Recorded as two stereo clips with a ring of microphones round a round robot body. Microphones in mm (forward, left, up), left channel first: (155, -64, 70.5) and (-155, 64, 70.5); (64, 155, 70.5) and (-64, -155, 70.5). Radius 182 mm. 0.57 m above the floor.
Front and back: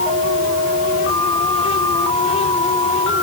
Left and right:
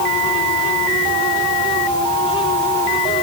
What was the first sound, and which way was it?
Only background noise.